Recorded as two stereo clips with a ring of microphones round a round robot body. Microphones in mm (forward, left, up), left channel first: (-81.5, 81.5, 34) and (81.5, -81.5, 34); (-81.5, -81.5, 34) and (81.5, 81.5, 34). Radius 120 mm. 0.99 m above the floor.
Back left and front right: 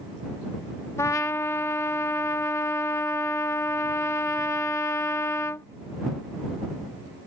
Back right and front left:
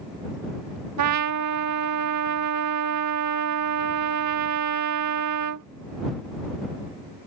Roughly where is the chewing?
No chewing in this recording.